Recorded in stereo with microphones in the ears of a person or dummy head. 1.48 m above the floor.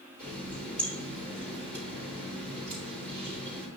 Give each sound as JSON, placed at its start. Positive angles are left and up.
{"t": 0.2, "sound": "a running tap", "side_deg": 10, "distance_m": 3.5}